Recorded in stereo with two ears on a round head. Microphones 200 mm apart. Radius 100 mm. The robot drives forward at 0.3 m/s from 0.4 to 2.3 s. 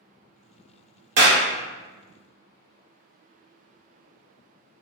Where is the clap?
50° right (ahead or behind), 0.9 m; by 1.4 s 55° right (ahead or behind), 0.9 m.